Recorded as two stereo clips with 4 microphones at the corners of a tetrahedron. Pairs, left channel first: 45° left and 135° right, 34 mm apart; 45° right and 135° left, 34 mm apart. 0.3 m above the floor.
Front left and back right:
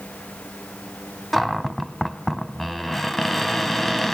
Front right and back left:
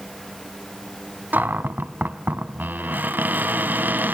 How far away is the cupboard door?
About 1.3 m.